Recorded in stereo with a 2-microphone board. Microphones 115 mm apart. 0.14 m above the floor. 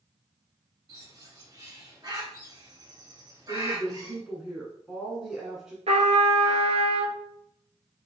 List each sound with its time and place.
0.9 s a bird: 35° right (ahead or behind), 2.0 m
3.5 s a woman speaking: 5° right (ahead or behind), 1.2 m
5.9 s a trumpet: 65° right (ahead or behind), 0.7 m